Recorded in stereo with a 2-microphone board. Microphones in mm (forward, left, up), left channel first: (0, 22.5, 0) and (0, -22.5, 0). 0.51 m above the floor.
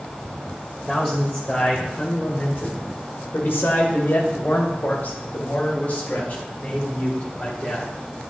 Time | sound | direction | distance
0.9 | a man speaking | 25° left (ahead or behind) | 2 m